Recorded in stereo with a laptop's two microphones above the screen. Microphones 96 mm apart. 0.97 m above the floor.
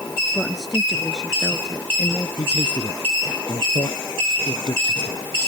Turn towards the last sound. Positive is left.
turn(degrees=60)  # may be behind; listen again after turning